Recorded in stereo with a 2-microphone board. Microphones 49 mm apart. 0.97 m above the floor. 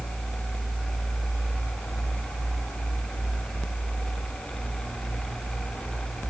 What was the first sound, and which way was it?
Only background noise.